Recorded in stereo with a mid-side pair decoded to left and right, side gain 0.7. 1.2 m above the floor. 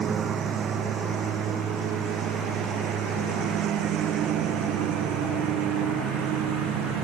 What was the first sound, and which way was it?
A lawn mower, 35° right.